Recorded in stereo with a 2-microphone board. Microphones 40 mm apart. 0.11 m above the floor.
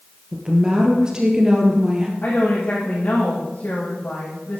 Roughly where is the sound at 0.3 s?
Centre.